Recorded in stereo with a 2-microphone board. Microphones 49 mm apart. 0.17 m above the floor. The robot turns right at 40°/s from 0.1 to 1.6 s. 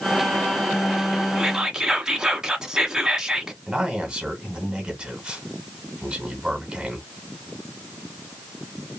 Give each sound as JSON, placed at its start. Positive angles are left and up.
{"t": 1.4, "sound": "whispering", "side_deg": -10, "distance_m": 1.2}
{"t": 3.7, "sound": "a man speaking", "side_deg": -20, "distance_m": 1.7}